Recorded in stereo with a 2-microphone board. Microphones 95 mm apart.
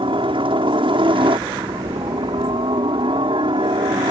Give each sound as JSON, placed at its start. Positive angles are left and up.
{"t": 0.0, "sound": "a helicopter", "side_deg": -65}